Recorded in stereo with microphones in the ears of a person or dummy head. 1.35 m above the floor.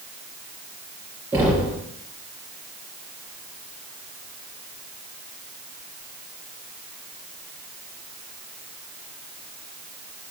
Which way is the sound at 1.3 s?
15° right (ahead or behind).